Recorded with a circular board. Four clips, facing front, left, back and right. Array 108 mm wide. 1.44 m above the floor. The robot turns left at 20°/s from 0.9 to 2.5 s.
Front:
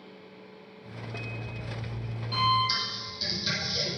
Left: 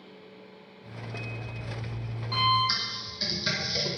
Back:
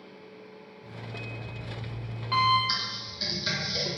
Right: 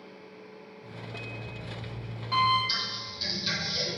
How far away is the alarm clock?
About 3 m.